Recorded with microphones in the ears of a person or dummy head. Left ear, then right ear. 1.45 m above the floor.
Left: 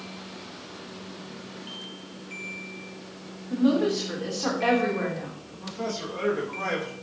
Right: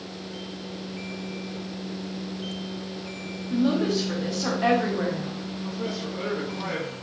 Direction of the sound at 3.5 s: 10° left (ahead or behind).